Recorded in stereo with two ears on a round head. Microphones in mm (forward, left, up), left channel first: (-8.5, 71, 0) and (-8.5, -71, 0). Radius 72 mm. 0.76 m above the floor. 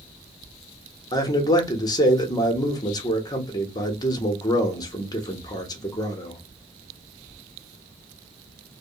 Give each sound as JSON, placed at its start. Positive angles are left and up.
{"t": 1.1, "sound": "a man speaking", "side_deg": 25, "distance_m": 0.7}